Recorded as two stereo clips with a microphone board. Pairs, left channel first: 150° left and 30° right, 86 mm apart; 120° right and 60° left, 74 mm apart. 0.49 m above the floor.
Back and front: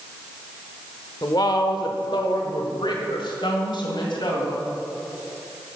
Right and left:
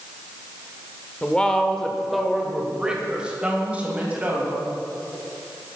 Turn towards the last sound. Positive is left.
turn(degrees=125)